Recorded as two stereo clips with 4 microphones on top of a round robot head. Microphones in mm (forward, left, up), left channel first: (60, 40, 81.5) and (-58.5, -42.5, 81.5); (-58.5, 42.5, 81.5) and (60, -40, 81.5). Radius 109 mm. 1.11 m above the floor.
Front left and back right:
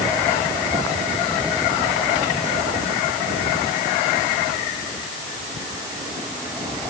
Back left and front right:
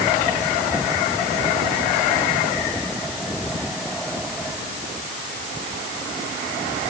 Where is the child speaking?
I don't hear a child speaking.